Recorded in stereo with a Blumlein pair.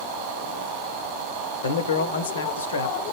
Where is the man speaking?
65° left, 0.6 m.